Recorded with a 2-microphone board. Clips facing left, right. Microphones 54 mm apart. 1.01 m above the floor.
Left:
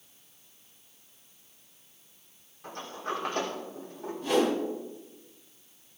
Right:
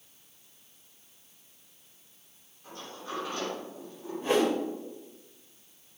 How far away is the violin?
No violin in this recording.